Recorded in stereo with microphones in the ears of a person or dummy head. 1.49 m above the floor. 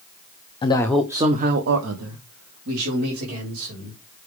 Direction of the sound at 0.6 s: 30° left (ahead or behind).